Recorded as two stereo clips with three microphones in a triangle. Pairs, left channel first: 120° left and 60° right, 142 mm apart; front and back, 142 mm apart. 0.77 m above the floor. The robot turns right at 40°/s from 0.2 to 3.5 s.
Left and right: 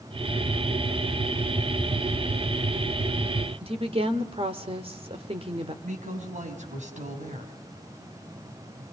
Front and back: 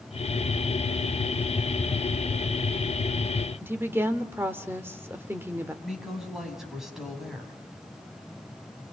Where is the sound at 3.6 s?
105° right, 2 m.